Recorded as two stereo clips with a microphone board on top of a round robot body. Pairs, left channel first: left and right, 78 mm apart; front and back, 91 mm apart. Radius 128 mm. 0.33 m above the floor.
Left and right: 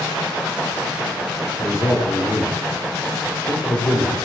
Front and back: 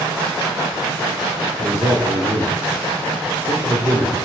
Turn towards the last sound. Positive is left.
turn(degrees=130)